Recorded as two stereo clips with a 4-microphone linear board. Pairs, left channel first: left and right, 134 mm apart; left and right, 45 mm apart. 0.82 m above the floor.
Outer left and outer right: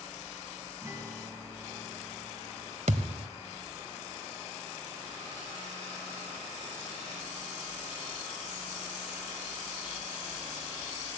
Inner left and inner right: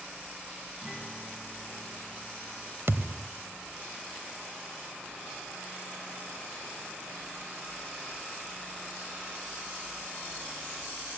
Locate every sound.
0.8 s a guitar: 20° right (ahead or behind), 3.5 m
2.9 s a thud: 60° right (ahead or behind), 1.4 m